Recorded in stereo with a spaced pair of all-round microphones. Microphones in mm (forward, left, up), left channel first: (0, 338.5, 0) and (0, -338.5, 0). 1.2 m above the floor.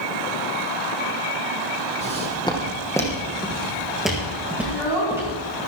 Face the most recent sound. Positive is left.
turn(degrees=50)  # may be behind; listen again after turning